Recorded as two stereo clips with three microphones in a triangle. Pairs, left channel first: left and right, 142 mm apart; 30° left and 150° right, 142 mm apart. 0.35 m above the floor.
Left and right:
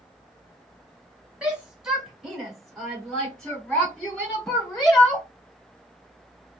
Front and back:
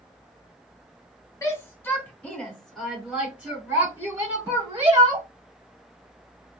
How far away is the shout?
About 1.5 m.